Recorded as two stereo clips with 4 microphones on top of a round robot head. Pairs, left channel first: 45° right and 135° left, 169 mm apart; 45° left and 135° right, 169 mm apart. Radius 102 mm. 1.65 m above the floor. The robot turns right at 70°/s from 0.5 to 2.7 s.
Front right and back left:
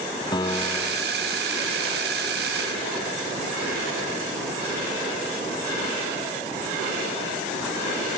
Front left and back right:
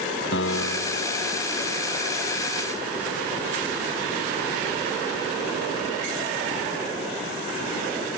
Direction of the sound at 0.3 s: 25° left.